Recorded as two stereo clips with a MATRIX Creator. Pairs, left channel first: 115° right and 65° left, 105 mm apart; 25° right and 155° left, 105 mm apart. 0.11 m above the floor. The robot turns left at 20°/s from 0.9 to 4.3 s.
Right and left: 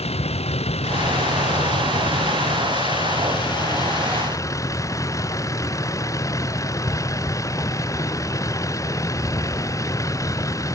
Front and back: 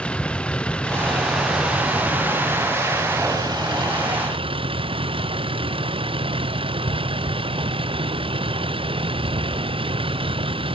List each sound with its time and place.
0.0 s a vehicle: 105° right; by 10.8 s 170° right